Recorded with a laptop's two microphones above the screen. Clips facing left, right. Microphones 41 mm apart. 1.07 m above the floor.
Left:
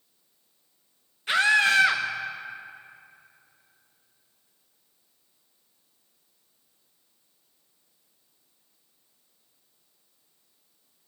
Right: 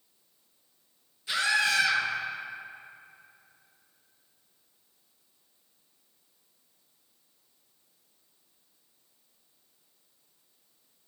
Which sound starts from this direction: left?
A scream, at 1.3 s.